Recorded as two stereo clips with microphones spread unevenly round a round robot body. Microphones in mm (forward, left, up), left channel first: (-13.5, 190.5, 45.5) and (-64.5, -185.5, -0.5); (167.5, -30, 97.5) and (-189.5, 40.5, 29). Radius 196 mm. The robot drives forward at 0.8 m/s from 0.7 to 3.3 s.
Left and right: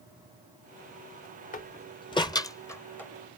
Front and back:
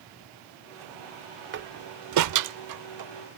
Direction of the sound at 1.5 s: 150° left.